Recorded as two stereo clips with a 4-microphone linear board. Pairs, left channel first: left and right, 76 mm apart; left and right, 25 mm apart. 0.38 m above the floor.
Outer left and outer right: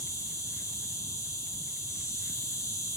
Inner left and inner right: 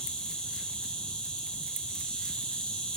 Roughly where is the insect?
Left.